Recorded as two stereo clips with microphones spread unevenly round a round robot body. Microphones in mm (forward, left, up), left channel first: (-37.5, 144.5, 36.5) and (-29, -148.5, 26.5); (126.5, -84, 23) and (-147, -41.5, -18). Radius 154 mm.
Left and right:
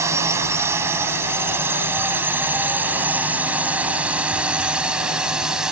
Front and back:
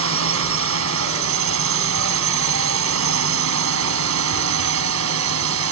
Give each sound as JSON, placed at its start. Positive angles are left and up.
{"t": 0.0, "sound": "a drone", "azimuth_deg": -170}